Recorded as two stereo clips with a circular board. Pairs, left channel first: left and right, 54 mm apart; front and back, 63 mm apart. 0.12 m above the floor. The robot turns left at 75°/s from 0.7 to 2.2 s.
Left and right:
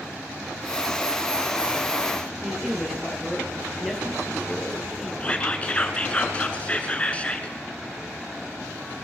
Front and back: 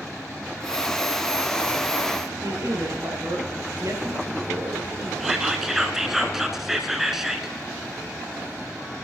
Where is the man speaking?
170° right, 2.5 m.